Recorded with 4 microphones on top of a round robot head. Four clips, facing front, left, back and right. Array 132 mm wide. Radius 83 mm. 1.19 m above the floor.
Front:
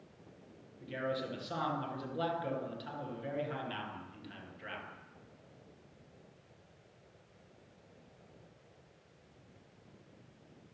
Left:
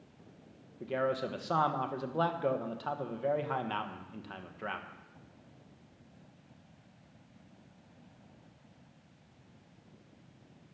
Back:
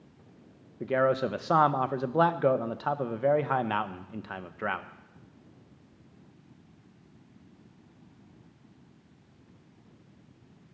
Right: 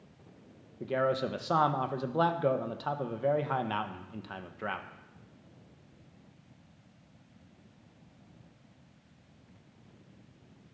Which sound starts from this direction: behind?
A man speaking, at 0.8 s.